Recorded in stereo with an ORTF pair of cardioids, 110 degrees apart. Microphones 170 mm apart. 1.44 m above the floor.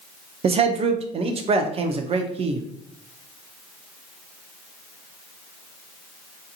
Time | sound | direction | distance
0.4 | a man speaking | 35° right | 0.6 m